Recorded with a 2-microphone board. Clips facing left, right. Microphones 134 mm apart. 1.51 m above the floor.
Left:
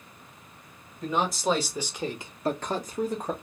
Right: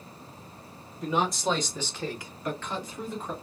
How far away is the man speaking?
About 1.2 m.